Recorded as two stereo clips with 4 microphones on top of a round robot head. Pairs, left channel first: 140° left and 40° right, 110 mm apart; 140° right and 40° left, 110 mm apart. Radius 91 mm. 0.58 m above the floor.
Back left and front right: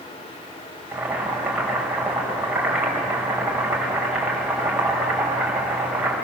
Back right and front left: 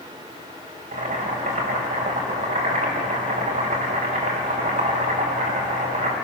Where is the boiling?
40° left, 4.5 m.